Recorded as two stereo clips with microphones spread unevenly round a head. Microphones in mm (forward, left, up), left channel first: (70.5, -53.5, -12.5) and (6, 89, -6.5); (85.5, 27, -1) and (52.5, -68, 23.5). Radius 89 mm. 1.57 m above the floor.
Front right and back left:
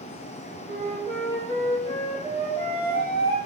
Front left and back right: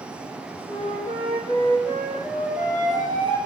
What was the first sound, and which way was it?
A flute, 135° right.